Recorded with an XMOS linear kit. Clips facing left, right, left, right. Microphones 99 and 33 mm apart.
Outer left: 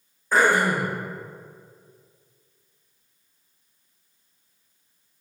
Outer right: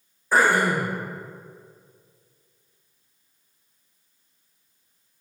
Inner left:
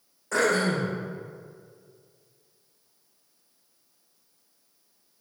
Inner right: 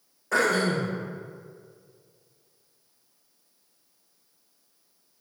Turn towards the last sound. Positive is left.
turn(degrees=-5)  # may be behind; listen again after turning